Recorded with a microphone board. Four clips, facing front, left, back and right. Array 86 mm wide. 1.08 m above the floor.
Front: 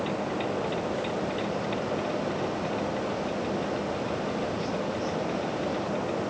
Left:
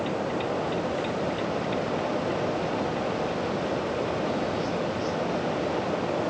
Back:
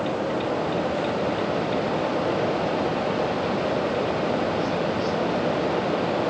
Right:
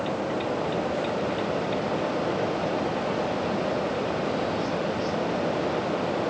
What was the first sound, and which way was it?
Only background noise.